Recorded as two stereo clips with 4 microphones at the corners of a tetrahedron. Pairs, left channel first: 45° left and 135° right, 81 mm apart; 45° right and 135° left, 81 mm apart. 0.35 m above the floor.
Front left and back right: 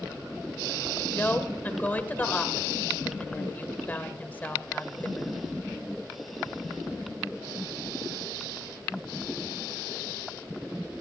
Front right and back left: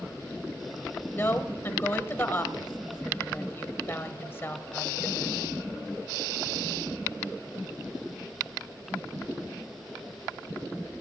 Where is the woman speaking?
10° right, 1.4 m.